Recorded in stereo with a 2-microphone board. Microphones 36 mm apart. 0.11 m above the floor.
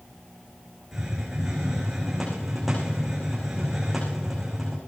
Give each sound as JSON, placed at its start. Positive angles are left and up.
{"t": 0.9, "sound": "a hiss", "side_deg": -5, "distance_m": 8.5}